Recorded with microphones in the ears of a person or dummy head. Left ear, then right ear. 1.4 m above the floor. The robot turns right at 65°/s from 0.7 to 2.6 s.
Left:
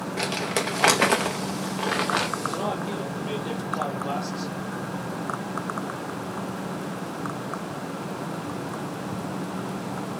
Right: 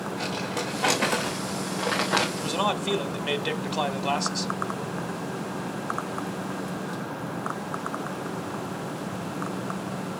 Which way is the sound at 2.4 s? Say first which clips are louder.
Right 2 dB; 75° right (ahead or behind).